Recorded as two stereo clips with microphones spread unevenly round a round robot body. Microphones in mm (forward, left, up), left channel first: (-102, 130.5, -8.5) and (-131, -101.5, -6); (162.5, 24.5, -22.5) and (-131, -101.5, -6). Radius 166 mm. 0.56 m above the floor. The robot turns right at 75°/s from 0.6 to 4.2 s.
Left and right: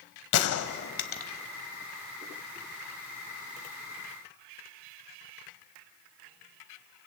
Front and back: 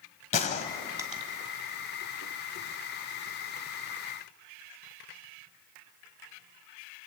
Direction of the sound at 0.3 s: 95° left.